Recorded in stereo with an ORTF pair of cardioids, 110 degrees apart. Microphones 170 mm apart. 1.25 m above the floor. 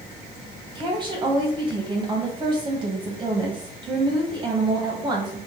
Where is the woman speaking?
30° right, 1.4 m.